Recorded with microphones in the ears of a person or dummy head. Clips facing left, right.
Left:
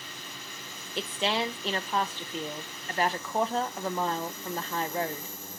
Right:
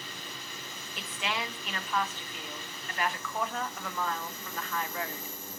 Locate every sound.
1.0 s a woman speaking: 30° left (ahead or behind), 0.6 m